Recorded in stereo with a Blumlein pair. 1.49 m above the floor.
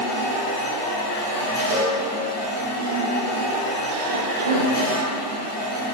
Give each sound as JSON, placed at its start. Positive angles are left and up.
{"t": 0.0, "sound": "a machine running", "azimuth_deg": 55, "distance_m": 2.0}
{"t": 1.7, "sound": "a cowbell", "azimuth_deg": -60, "distance_m": 0.7}
{"t": 4.1, "sound": "a cough", "azimuth_deg": -65, "distance_m": 0.6}